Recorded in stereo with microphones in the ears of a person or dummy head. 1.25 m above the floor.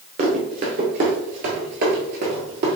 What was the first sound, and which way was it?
Running footsteps, 25° right (ahead or behind).